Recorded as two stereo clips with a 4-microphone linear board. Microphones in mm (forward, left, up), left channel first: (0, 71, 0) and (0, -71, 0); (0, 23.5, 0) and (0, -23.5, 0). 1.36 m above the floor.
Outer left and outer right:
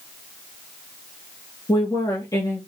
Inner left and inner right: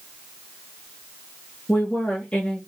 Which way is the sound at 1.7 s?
25° left (ahead or behind).